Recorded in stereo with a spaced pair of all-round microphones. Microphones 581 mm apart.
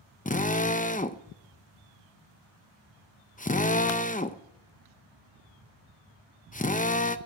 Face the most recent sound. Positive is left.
turn(degrees=15)  # may be behind; listen again after turning